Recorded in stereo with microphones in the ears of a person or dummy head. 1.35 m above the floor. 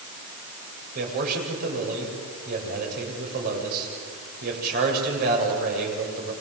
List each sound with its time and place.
0.9 s a man speaking: 50° right (ahead or behind), 7.5 m